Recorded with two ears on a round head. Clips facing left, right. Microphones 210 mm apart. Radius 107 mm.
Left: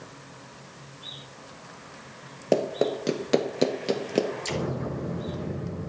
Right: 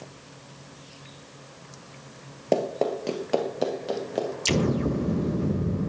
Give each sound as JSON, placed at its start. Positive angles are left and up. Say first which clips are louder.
{"t": 2.5, "sound": "running footsteps", "louder": "left 1 dB", "side_deg": 10, "distance_m": 1.8}
{"t": 4.5, "sound": "an explosion", "louder": "right 6 dB", "side_deg": -45, "distance_m": 1.2}